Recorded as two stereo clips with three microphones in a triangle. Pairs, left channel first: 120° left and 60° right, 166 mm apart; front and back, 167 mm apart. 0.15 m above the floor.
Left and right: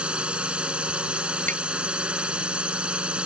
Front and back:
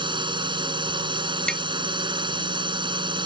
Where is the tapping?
85° right.